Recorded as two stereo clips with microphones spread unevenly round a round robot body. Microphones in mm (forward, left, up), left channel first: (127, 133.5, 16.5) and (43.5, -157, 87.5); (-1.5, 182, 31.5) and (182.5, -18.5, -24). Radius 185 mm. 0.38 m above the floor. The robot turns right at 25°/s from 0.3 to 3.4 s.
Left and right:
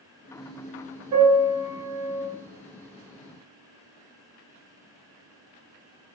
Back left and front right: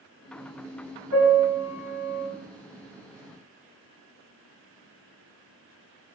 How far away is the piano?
About 1.8 m.